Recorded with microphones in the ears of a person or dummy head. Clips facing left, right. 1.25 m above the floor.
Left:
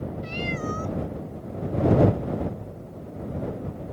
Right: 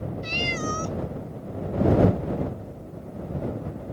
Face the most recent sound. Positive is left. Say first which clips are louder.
# right 1 dB
turn(degrees=-60)  # may be behind; listen again after turning